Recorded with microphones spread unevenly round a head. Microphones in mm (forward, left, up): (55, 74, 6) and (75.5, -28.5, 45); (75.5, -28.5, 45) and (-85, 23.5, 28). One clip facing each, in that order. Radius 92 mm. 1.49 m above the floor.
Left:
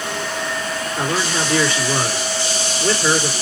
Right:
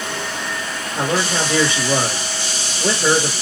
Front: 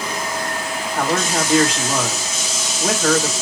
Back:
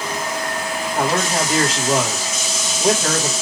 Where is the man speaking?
120° right, 1.7 m.